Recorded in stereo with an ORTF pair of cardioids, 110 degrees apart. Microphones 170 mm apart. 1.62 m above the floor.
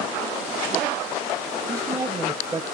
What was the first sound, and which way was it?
A man speaking, 20° right.